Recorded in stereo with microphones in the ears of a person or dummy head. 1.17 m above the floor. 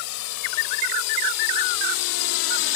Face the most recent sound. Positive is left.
turn(degrees=55)  # may be behind; listen again after turning